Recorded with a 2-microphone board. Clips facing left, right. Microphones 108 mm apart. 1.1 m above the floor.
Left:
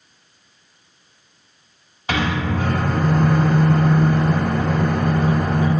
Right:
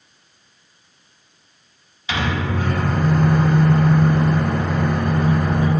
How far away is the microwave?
About 0.5 m.